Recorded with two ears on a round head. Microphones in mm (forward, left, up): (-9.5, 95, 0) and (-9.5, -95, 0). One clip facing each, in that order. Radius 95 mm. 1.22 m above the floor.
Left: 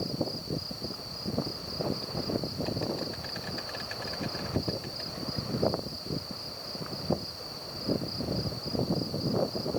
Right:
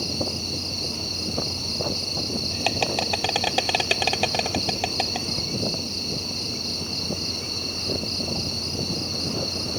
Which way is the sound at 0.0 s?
85° right.